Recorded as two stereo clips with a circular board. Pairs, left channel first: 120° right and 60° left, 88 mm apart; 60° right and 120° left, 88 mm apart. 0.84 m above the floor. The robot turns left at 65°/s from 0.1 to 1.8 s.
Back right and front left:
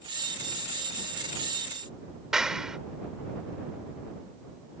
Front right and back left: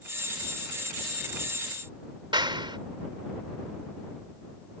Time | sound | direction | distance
2.3 | a clap | 145° left | ?